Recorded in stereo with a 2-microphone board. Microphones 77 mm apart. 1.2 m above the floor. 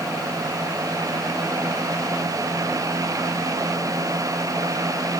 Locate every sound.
Only background noise.